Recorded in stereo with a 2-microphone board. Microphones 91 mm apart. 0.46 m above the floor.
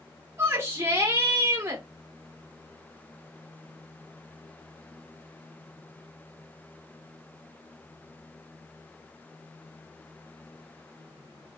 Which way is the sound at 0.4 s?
30° right (ahead or behind).